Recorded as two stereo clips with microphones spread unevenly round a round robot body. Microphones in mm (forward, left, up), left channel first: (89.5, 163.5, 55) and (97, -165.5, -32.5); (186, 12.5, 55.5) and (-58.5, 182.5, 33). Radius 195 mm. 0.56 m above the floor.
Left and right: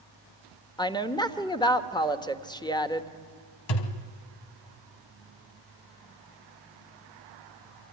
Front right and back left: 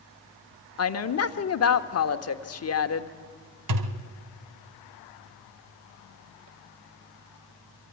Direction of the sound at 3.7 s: 120° left.